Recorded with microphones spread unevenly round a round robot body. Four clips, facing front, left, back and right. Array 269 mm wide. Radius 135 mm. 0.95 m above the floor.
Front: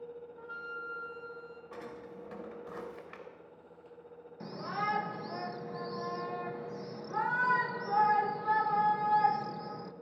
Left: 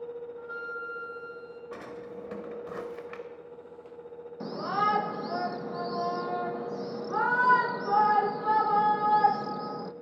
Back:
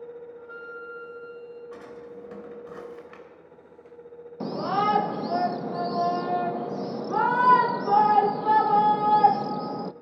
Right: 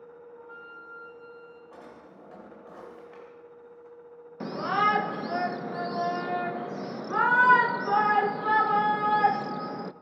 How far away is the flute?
About 1.7 m.